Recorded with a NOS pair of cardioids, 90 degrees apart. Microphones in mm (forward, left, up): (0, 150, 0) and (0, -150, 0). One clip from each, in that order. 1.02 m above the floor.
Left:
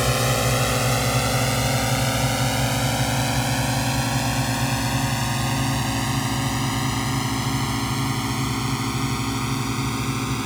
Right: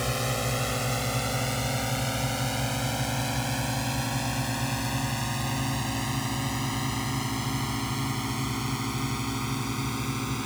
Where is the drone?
60° left; by 10.5 s 45° left.